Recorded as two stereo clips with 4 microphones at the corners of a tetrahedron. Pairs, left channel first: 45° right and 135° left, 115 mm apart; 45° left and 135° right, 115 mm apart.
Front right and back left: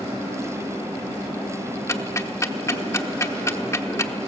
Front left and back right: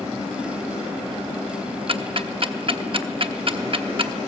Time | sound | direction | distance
1.9 | ticking | 105° right | 0.9 m